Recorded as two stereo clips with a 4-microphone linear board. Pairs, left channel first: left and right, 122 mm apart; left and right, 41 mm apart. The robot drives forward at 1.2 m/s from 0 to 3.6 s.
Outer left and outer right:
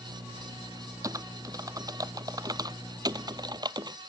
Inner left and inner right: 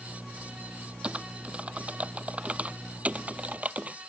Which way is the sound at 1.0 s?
30° right (ahead or behind).